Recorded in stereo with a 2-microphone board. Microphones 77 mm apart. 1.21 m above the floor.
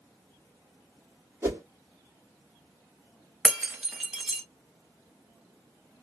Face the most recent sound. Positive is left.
turn(degrees=-10)  # may be behind; listen again after turning